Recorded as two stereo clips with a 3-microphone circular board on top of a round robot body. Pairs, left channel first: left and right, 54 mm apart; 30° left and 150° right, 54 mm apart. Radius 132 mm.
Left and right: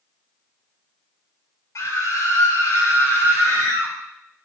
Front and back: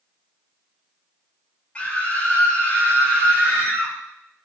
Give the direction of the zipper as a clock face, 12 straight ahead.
I don't hear a zipper.